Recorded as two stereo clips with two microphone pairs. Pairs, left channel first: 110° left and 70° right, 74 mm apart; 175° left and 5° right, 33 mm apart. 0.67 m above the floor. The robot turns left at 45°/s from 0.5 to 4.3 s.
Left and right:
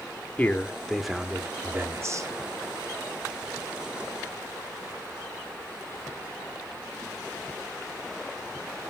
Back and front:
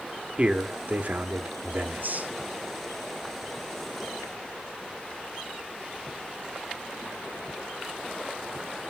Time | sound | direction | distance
0.4 | a man speaking | 45° left | 1.1 m